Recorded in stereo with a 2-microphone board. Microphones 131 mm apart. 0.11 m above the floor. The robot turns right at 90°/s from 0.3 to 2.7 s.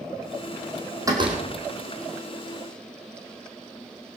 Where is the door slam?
155° right, 3 m; by 1.4 s 120° right, 3 m.